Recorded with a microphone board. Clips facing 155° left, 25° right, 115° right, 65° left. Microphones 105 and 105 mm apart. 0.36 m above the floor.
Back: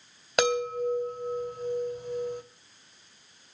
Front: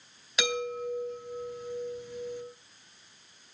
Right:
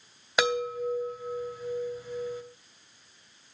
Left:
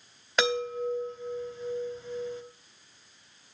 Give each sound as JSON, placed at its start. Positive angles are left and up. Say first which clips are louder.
{"t": 0.4, "sound": "a chime", "louder": "back 6 dB, right 1 dB", "azimuth_deg": 170, "distance_m": 2.0}